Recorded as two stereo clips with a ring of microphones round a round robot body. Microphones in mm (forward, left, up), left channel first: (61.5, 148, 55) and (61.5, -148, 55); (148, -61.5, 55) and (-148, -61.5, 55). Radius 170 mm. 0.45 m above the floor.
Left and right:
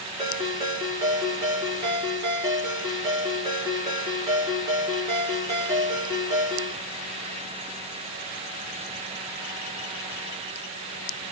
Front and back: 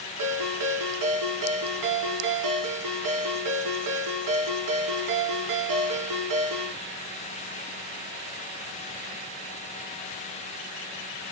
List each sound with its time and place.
0.2 s a ringtone: 170° right, 4 m